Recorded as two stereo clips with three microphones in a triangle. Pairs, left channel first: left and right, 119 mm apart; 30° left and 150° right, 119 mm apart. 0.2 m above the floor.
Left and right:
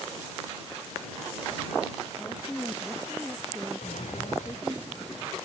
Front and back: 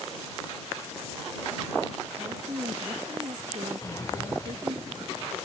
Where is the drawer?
95° left.